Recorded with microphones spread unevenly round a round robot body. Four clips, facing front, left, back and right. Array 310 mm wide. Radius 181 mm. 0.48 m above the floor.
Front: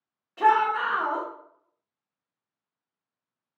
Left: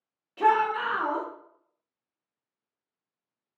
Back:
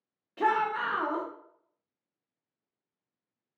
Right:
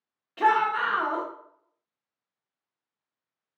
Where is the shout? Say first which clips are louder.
Even, front 6 dB; 155° right, 0.7 m.